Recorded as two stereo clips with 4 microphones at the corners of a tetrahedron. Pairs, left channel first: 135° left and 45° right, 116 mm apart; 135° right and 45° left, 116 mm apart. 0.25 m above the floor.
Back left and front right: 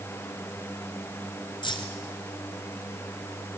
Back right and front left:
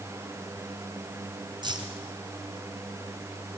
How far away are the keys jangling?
About 2.5 m.